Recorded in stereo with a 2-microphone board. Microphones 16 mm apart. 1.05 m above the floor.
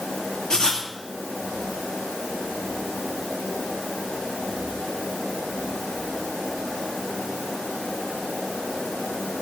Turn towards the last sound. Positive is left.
turn(degrees=55)  # may be behind; listen again after turning